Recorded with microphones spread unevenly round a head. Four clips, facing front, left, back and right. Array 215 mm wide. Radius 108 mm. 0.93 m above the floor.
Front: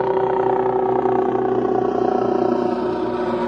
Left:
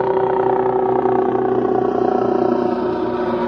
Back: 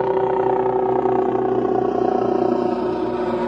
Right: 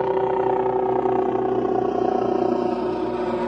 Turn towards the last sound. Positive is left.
turn(degrees=85)